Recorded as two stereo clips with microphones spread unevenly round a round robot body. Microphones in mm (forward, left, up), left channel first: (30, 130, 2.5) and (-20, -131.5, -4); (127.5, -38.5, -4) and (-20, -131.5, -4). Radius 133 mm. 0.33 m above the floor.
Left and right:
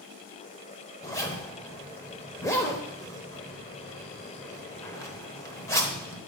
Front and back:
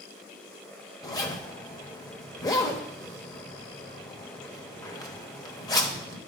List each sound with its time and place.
1.0 s a zipper: 15° left, 0.9 m